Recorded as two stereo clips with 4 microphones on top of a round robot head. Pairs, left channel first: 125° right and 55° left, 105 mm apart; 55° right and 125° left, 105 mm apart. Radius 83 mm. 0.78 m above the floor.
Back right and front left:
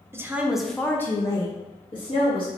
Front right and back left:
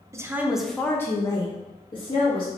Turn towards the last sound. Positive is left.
turn(degrees=-85)